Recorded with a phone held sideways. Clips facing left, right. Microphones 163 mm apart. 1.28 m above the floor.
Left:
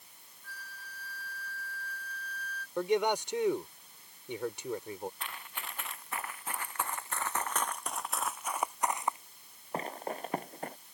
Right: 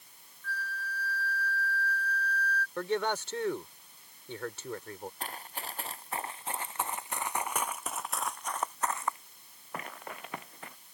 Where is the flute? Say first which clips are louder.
Right 11 dB; 15° left (ahead or behind).